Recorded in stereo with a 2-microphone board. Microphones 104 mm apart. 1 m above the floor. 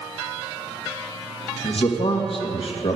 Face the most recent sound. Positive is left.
turn(degrees=65)  # may be behind; listen again after turning